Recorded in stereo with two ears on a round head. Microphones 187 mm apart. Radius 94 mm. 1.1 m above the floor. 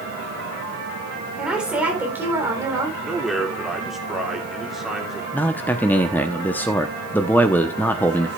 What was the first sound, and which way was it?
A woman speaking, 5° right (ahead or behind).